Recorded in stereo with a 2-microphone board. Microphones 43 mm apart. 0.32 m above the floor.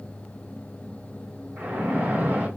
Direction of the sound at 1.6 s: 50° right (ahead or behind).